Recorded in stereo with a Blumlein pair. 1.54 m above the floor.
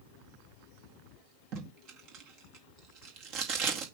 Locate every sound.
1.5 s tape being pulled: 40° right, 2.0 m